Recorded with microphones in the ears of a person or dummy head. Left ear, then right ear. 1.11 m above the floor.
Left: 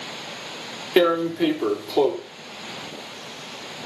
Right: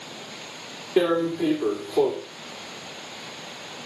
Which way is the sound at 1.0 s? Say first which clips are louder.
Left 3 dB; 70° left (ahead or behind).